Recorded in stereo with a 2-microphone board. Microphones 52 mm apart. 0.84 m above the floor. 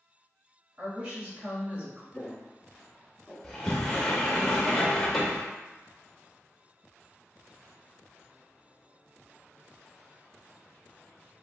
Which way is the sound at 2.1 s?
15° left (ahead or behind).